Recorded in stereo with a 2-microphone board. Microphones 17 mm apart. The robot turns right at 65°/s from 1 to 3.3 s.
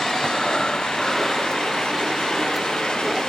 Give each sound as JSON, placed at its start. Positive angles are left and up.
{"t": 0.2, "sound": "breathing", "azimuth_deg": 145}